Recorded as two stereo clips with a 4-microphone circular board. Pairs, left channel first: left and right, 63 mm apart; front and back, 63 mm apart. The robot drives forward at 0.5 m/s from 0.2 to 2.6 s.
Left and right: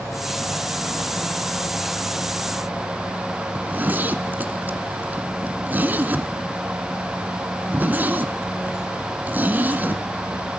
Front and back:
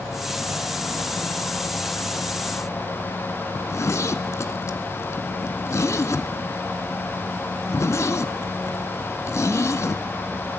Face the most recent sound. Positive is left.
turn(degrees=-30)